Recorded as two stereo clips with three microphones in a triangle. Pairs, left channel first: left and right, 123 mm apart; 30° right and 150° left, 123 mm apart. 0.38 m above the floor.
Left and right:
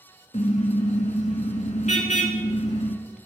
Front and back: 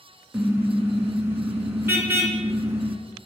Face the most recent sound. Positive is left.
turn(degrees=80)